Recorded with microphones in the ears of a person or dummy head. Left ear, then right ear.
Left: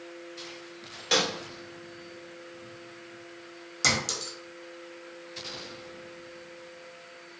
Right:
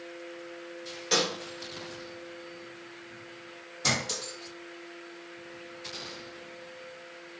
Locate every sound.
1.1 s a snare drum: 15° left (ahead or behind), 1.0 m
3.8 s a clink: 55° left (ahead or behind), 1.1 m